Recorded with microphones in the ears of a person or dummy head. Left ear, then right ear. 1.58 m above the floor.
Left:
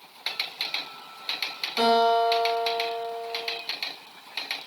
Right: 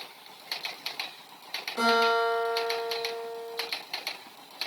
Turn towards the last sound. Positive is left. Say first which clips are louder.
# left 3 dB
turn(degrees=-15)  # may be behind; listen again after turning